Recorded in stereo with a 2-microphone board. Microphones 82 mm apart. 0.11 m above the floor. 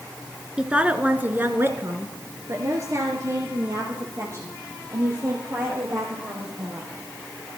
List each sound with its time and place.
0.6 s a woman speaking: 10° right (ahead or behind), 1.2 m; by 6.9 s 40° right (ahead or behind), 4 m